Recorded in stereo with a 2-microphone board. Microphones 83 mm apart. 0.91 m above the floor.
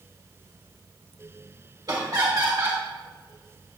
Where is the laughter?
50° right (ahead or behind), 1.7 m.